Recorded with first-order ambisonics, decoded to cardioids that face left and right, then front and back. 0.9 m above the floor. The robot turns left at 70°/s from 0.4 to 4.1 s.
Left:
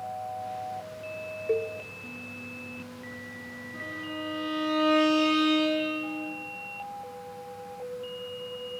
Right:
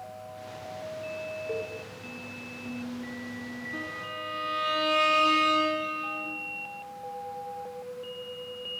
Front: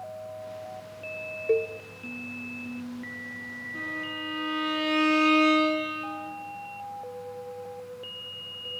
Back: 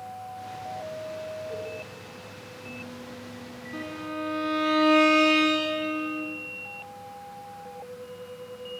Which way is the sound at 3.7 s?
150° right.